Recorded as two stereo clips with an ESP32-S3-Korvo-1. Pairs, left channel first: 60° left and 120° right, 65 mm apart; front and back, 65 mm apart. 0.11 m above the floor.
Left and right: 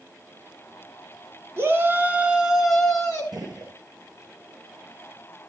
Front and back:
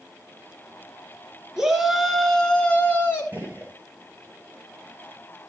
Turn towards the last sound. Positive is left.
turn(degrees=-115)